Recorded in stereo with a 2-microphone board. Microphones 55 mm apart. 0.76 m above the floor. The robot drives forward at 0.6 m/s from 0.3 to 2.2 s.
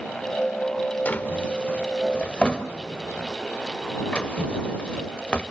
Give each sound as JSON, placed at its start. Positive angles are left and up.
{"t": 1.1, "sound": "a drawer", "side_deg": 30, "distance_m": 1.4}